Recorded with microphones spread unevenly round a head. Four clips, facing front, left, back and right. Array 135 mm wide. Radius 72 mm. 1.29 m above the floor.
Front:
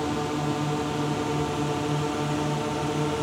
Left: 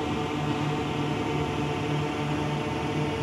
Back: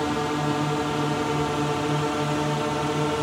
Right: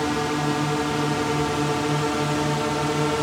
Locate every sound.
0.0 s a drone: 155° right; by 3.2 s 145° right